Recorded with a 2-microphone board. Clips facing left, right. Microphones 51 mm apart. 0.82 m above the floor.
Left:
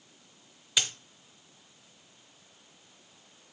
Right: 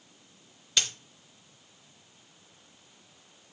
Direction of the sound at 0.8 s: 10° left (ahead or behind).